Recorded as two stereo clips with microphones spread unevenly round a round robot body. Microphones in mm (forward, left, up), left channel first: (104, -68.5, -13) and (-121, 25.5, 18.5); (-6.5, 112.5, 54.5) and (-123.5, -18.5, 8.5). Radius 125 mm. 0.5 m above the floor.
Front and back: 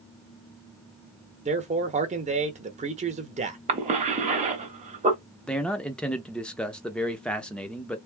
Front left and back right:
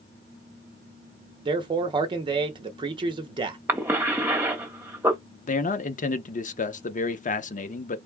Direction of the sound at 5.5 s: 45° left.